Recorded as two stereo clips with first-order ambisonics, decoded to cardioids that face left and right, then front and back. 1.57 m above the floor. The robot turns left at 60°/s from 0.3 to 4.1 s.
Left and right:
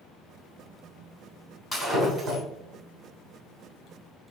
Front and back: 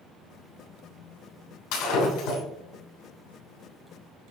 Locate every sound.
1.7 s breaking glass: 5° right, 3 m; by 2.4 s 45° right, 3 m